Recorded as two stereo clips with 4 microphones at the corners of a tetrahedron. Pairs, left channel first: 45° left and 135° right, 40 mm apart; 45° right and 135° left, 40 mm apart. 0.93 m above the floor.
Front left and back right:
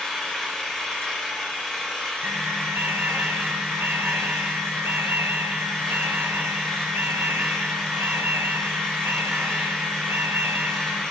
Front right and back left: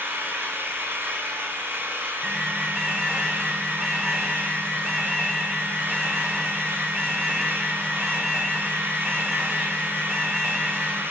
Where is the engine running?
120° left, 4 m.